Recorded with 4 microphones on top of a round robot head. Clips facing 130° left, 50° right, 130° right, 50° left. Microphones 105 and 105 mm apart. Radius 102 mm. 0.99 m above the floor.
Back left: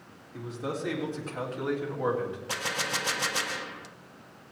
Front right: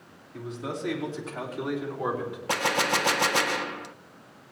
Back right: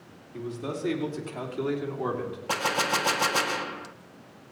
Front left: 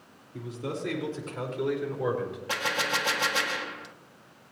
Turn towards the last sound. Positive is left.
turn(degrees=-80)